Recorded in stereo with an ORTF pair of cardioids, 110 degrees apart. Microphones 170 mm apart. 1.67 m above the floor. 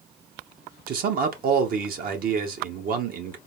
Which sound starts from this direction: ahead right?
A man speaking, at 0.9 s.